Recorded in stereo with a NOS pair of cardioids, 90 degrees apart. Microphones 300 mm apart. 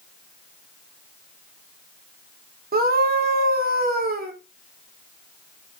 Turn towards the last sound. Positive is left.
turn(degrees=-30)